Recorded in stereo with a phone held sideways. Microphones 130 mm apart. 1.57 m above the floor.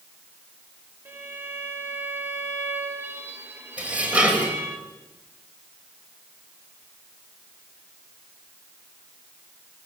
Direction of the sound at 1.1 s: 15° right (ahead or behind).